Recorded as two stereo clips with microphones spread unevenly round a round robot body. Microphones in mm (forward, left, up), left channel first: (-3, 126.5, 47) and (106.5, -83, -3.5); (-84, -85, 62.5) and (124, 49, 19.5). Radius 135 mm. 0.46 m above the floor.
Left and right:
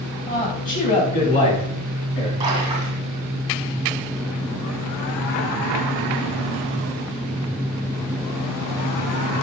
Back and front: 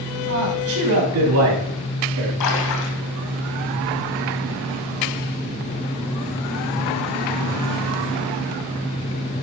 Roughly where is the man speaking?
Ahead left.